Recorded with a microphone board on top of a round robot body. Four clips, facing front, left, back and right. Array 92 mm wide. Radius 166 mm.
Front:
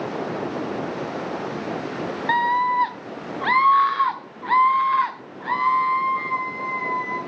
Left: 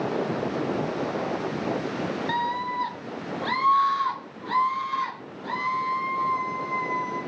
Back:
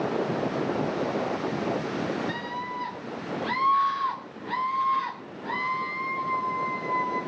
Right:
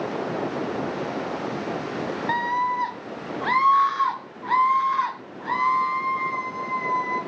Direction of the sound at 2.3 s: 20° right.